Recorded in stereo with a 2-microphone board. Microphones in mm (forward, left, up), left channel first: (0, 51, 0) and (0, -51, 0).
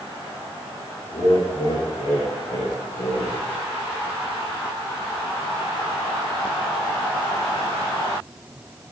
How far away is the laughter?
About 5.5 m.